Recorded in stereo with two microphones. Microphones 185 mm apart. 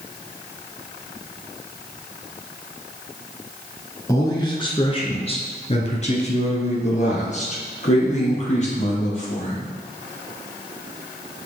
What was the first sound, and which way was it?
A man speaking, 20° left (ahead or behind).